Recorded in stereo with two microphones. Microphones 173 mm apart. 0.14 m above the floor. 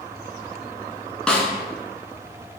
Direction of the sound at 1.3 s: 5° left (ahead or behind).